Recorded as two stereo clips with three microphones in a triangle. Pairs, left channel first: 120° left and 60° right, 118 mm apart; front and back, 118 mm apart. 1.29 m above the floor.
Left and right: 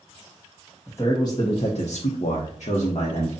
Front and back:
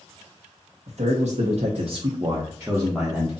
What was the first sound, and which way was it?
A man speaking, 170° right.